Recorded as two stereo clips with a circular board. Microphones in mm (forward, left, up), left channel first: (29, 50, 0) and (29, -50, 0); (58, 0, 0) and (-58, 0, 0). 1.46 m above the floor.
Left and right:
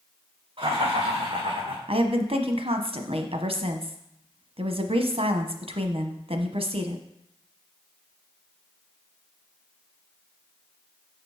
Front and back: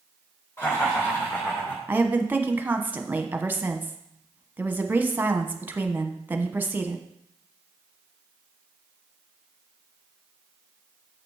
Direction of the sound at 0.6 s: 65° right.